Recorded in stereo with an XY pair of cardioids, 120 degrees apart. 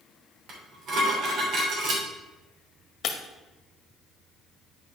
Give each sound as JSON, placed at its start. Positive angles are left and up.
{"t": 0.5, "sound": "dishes clattering", "azimuth_deg": -55, "distance_m": 3.0}
{"t": 3.0, "sound": "breaking glass", "azimuth_deg": 55, "distance_m": 1.5}